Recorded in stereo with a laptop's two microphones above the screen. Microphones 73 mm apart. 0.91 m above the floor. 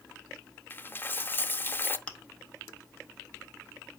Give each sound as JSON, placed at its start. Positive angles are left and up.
{"t": 0.7, "sound": "a dropped coin", "side_deg": 30, "distance_m": 0.6}
{"t": 2.1, "sound": "chewing", "side_deg": 15, "distance_m": 0.9}